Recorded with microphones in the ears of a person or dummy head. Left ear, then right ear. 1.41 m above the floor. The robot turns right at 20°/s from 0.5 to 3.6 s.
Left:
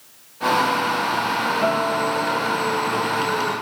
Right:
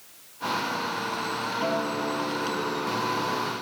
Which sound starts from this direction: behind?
A guitar, at 1.6 s.